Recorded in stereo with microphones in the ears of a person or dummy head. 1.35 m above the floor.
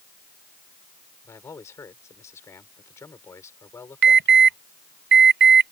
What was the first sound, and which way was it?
A man speaking, 20° left (ahead or behind).